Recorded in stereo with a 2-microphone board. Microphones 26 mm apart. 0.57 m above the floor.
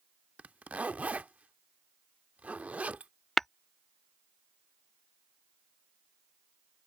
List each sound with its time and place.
0.4 s a zipper: 70° right (ahead or behind)
3.4 s tapping: 10° left (ahead or behind)